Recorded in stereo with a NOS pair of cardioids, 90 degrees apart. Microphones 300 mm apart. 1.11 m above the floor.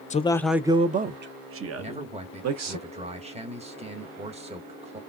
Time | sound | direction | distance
0.1 | a man speaking | 25° left | 0.5 m
1.8 | a man speaking | 20° right | 1.3 m